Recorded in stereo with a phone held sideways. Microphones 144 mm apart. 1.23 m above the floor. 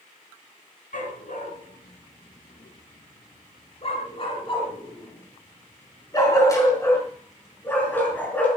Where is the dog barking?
65° left (ahead or behind), 6 m; by 8.5 s 10° left (ahead or behind), 7 m.